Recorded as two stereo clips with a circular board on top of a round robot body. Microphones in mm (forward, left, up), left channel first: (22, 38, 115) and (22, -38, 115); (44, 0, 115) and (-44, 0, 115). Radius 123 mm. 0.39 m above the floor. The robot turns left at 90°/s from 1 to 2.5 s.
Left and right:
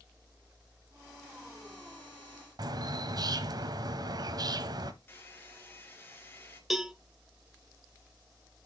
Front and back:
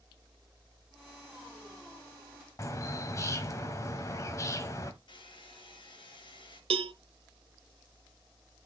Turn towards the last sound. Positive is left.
turn(degrees=-175)